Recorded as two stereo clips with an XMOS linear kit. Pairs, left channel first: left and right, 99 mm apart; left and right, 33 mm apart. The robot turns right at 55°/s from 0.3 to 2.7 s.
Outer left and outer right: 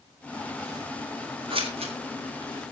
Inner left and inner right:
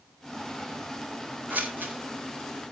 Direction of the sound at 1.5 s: 60° right (ahead or behind).